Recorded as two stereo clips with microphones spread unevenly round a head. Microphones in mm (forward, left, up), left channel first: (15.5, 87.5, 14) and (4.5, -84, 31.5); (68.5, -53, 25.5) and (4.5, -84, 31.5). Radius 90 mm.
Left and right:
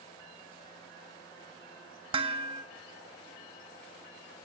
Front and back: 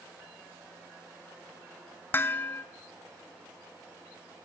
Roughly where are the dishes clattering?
Ahead right.